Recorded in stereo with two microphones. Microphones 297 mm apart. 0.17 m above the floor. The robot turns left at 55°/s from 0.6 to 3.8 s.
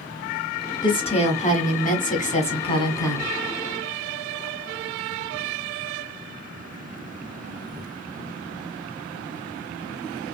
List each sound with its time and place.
0.8 s a woman speaking: 15° left (ahead or behind), 1.2 m; by 3.3 s 5° left (ahead or behind), 1.2 m